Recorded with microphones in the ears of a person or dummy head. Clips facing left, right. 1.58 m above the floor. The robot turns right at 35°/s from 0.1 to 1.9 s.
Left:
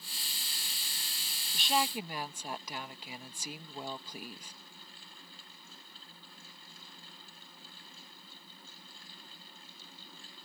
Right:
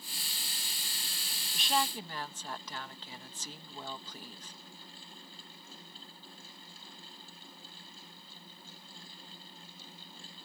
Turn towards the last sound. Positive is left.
turn(degrees=15)  # may be behind; listen again after turning